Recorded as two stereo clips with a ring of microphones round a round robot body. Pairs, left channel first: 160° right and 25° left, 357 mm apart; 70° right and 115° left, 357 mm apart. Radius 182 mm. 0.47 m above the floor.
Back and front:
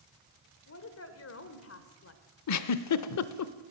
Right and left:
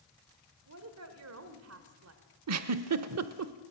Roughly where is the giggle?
Behind.